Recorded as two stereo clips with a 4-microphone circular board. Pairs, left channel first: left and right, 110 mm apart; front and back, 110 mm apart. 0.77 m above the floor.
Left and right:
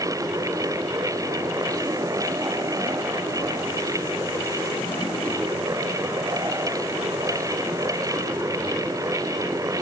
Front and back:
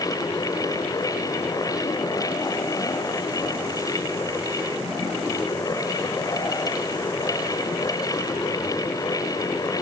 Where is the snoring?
No snoring in this recording.